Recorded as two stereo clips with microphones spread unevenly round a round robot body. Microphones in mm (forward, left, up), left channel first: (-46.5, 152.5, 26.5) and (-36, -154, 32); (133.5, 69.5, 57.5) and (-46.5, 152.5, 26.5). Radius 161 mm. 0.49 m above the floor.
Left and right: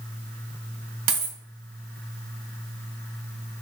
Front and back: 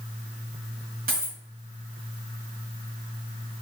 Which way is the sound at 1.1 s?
150° right.